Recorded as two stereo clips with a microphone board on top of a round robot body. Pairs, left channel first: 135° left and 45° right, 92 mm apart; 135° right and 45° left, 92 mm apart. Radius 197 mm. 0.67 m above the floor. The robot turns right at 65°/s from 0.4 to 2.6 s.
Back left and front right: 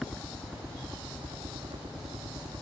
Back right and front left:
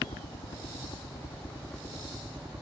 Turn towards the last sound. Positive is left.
turn(degrees=0)